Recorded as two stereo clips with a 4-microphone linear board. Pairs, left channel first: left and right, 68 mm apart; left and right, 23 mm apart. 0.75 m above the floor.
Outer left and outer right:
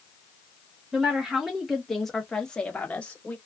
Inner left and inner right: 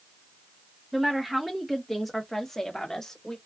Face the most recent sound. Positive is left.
turn(degrees=20)  # may be behind; listen again after turning